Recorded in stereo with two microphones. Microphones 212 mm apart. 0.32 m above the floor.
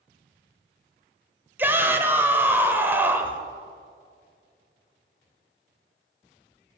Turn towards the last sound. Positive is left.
turn(degrees=-10)  # may be behind; listen again after turning